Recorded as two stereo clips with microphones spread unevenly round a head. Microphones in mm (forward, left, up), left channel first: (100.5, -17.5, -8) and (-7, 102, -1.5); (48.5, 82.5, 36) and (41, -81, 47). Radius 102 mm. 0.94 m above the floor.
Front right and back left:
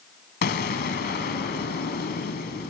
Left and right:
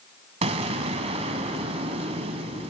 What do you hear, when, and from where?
0.4 s an explosion: 50° right, 1.3 m